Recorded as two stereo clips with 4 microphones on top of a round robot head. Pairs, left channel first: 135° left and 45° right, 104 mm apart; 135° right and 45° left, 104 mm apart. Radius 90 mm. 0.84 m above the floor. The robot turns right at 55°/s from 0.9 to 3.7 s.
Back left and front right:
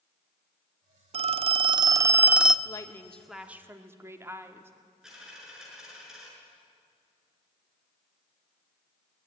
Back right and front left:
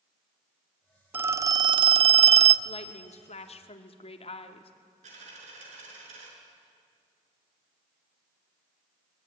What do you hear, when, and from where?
1.1 s a phone ringing: 30° right, 0.7 m; by 2.5 s 45° left, 0.7 m
2.6 s a woman speaking: 165° right, 2 m; by 4.7 s 110° right, 2 m
5.0 s a dropped coin: 45° left, 6.5 m